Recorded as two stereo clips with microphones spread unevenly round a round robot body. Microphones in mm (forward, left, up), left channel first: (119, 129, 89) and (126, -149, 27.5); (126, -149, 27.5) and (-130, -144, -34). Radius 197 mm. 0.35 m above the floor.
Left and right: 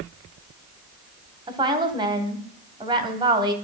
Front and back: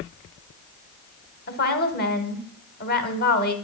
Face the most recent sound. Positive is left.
turn(degrees=-50)